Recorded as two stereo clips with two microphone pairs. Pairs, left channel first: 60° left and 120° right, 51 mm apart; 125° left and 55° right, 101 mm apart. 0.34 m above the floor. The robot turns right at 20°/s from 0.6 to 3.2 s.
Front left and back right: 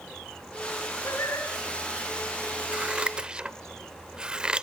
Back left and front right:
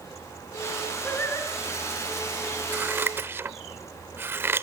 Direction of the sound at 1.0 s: 50° left.